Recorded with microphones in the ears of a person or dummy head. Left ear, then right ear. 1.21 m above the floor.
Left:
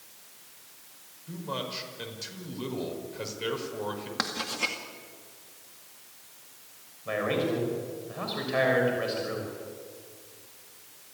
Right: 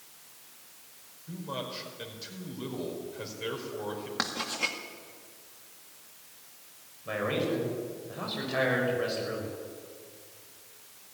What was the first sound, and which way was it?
A man speaking, 15° left (ahead or behind).